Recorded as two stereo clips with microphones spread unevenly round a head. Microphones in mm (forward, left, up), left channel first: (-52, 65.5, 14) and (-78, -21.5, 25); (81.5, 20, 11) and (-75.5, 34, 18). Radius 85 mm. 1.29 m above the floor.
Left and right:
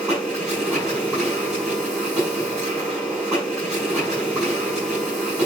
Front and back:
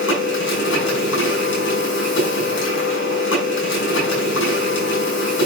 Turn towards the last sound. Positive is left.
turn(degrees=-25)